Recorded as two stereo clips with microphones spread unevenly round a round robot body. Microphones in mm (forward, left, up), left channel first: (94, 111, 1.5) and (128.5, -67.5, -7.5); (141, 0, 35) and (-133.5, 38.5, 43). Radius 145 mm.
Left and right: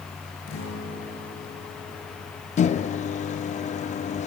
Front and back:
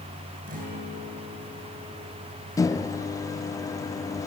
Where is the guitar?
110° left, 9 m.